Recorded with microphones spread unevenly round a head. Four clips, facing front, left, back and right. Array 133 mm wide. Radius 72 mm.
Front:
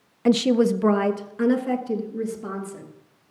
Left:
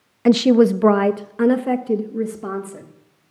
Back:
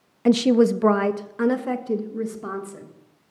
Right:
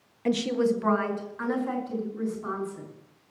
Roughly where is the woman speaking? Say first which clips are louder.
Left 11 dB, back 2 dB; ahead left.